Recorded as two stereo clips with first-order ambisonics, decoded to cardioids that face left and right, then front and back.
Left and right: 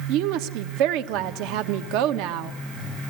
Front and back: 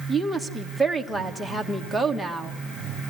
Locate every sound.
0.1 s a woman speaking: 95° right, 1.3 m